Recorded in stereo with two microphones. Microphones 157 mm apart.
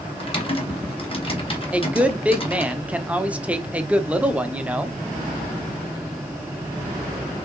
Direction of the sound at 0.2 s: 35° left (ahead or behind).